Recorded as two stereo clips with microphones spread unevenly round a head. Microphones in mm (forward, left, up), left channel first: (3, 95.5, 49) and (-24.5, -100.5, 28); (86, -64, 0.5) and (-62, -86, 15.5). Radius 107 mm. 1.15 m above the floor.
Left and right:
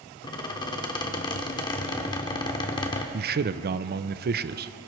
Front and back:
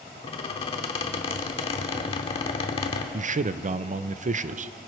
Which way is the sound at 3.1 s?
135° right.